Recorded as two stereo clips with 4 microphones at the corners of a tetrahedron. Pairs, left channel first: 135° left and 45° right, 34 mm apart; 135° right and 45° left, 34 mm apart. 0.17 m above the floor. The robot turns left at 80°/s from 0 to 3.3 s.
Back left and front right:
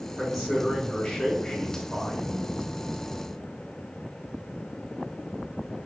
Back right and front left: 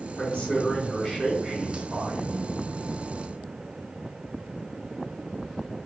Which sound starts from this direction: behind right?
A man speaking, at 0.2 s.